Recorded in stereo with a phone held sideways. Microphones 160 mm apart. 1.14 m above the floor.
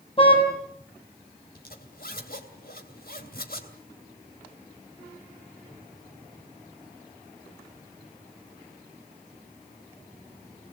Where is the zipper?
70° left (ahead or behind), 3 m.